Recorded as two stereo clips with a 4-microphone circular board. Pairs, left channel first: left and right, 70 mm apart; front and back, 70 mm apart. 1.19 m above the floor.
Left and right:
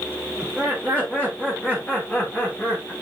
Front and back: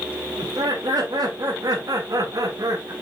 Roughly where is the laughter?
Behind.